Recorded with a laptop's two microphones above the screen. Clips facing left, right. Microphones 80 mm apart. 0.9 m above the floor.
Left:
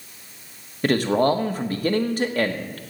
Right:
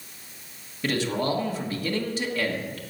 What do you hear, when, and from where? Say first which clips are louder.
0.8 s a man speaking: left 7 dB; 50° left (ahead or behind), 1.2 m